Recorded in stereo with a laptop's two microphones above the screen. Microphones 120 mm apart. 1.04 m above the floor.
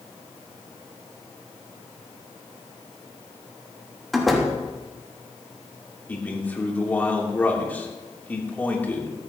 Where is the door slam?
Centre (ahead or behind), 1.4 m.